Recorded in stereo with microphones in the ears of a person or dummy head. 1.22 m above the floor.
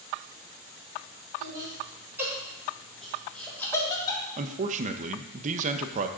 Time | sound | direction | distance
1.4 | laughter | 20° right (ahead or behind) | 4.5 m
4.4 | a man speaking | 40° right (ahead or behind) | 0.7 m